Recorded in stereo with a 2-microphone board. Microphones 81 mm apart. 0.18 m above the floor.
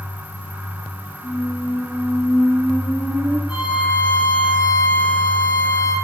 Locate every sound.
1.2 s a squeak: 60° left (ahead or behind), 2 m
3.5 s a violin: 60° left (ahead or behind), 3.5 m